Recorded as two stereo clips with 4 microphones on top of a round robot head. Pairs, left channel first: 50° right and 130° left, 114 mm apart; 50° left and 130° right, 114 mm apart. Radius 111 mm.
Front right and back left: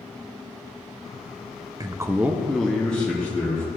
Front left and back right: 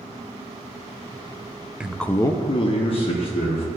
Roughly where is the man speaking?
Behind.